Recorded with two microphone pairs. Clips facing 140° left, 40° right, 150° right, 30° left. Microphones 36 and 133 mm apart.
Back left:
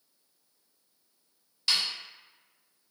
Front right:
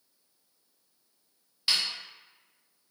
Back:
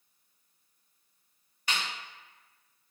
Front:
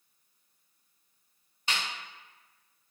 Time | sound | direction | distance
1.7 | a snare drum | 25° left | 1.0 m